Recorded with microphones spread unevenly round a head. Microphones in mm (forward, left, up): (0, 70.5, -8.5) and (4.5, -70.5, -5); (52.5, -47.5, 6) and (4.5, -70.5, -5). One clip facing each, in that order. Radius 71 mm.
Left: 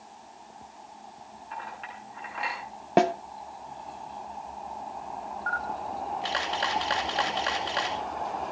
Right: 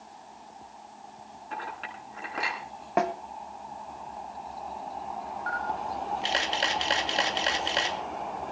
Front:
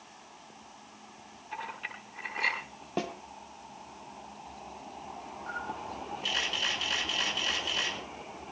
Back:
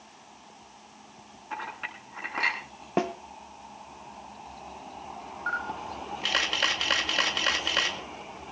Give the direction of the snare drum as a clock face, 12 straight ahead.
7 o'clock.